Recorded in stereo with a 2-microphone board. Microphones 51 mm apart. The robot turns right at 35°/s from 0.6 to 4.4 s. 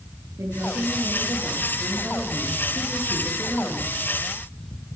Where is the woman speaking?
100° right, 10 m; by 3.9 s 15° left, 10 m.